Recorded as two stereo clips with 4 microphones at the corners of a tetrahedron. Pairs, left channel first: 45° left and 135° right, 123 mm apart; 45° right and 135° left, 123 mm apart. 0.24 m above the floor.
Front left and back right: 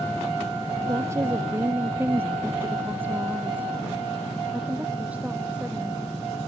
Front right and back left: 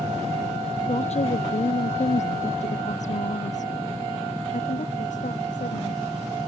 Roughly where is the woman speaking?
Right.